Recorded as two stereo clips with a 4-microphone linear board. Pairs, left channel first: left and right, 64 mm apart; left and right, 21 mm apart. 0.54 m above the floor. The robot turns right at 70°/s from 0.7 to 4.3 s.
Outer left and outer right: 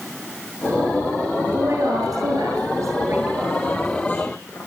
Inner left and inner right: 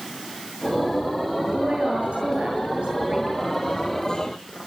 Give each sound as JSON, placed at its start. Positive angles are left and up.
{"t": 1.4, "sound": "a woman speaking", "azimuth_deg": -155, "distance_m": 8.5}